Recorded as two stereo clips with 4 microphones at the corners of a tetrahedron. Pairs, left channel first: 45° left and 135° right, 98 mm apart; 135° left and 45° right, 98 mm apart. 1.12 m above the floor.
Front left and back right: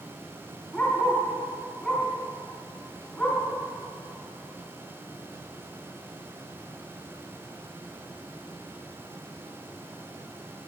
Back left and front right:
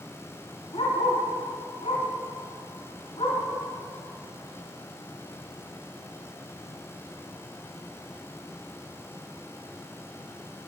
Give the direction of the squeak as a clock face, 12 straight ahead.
No squeak in this recording.